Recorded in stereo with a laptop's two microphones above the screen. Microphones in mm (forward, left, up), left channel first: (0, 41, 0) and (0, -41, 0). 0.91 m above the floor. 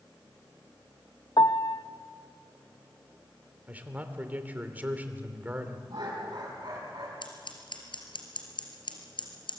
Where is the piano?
55° left (ahead or behind), 0.5 m.